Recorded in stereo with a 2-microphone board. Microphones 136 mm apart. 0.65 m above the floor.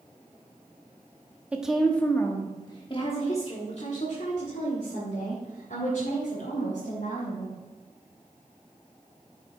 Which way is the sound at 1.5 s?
10° right (ahead or behind).